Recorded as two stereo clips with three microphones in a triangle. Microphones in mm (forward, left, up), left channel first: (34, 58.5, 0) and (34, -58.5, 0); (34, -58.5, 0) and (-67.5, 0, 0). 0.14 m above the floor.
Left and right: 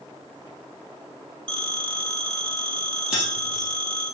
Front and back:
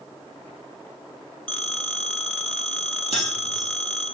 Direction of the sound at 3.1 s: 5° right.